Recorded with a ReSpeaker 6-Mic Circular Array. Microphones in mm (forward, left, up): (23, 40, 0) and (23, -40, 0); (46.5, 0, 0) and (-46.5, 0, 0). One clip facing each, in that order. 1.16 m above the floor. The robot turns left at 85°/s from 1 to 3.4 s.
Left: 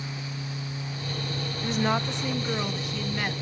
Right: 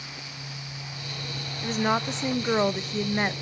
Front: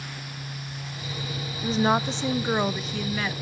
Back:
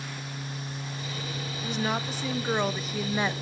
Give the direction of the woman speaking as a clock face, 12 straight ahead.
12 o'clock.